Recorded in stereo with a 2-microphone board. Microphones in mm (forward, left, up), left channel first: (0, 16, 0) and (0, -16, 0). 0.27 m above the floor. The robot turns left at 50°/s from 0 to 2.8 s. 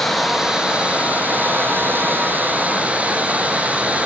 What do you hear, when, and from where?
0.0 s running water: 5° left, 3.5 m; by 4.1 s 135° right, 3.5 m